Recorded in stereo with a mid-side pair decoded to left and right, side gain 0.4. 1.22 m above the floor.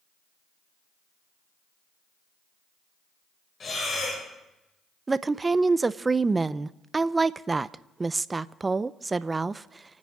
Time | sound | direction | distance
3.6 | breathing | 40° left | 6.5 m
5.1 | a woman speaking | 30° right | 0.6 m